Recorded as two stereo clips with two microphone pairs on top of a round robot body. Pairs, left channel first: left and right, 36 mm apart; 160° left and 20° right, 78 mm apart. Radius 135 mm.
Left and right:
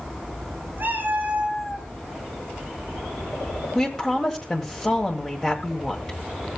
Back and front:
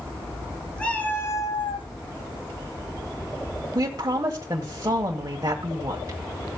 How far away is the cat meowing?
About 1.6 m.